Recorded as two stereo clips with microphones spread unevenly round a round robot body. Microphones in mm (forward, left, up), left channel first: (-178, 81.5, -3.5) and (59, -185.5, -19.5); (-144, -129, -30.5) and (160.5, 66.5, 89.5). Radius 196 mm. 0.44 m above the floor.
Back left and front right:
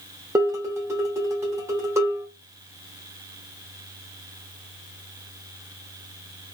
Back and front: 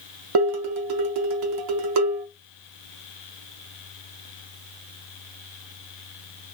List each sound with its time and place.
0.3 s dishes clattering: 25° left, 0.6 m